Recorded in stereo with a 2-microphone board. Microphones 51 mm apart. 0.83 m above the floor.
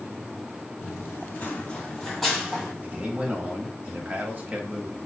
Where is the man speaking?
30° right (ahead or behind), 0.9 m.